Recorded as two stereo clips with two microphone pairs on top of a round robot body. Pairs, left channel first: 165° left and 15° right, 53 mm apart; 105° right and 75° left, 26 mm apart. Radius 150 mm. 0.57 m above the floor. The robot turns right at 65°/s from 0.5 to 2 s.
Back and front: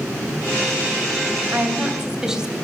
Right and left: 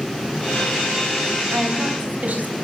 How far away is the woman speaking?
About 3.5 m.